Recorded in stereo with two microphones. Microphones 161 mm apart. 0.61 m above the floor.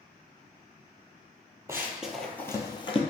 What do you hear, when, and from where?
1.7 s running footsteps: 15° right (ahead or behind), 0.8 m; by 3.0 s 35° left (ahead or behind), 0.8 m